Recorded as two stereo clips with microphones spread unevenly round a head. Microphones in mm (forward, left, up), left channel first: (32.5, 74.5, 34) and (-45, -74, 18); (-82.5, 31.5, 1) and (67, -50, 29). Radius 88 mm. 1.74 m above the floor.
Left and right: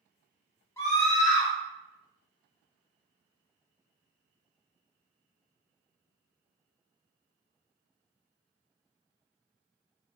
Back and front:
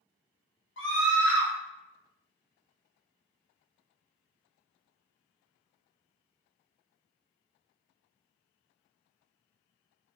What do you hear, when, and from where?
0.8 s a scream: 140° left, 1.4 m